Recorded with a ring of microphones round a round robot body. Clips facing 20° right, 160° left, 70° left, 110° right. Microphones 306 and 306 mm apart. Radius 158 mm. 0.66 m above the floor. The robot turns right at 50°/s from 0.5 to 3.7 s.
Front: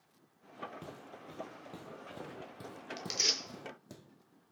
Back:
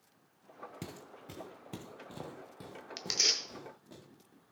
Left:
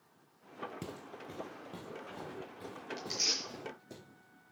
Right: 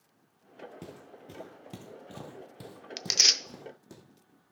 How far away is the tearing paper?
About 0.6 m.